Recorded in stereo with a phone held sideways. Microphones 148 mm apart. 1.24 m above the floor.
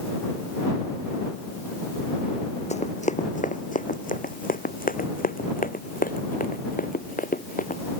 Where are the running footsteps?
50° left (ahead or behind); by 7.8 s 70° left (ahead or behind).